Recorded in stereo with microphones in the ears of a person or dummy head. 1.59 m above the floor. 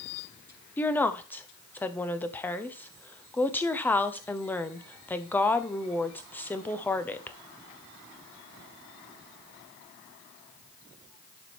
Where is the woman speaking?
10° left (ahead or behind), 1.0 m.